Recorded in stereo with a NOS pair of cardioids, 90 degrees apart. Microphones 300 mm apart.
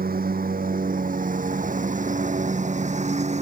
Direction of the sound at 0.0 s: 30° right.